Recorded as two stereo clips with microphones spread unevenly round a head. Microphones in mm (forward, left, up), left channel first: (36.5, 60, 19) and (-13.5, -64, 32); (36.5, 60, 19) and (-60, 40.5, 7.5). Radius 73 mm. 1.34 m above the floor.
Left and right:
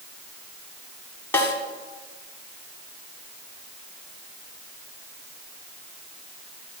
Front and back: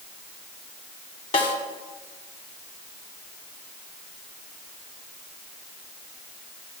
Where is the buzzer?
I don't hear a buzzer.